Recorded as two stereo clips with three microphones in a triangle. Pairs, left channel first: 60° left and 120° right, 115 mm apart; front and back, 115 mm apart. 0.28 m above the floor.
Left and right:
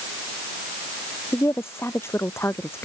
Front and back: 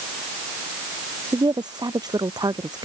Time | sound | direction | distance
1.3 | a woman speaking | 130° left | ?